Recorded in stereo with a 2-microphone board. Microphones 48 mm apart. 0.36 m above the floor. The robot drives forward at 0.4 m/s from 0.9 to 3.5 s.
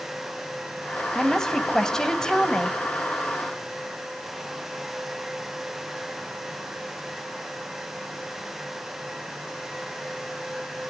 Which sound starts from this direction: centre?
A woman speaking, at 1.1 s.